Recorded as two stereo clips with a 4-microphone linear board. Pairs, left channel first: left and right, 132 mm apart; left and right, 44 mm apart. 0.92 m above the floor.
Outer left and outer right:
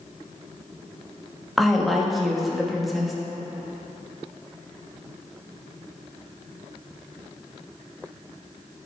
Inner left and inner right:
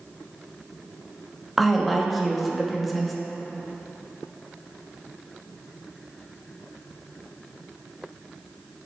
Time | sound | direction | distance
1.6 | a woman speaking | centre (ahead or behind) | 1.0 m